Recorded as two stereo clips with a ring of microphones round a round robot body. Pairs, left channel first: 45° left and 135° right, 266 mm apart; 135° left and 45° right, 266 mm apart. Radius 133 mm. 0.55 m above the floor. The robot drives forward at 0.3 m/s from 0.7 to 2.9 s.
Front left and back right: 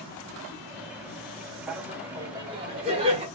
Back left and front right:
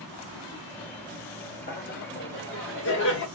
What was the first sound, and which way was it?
Laughter, 140° left.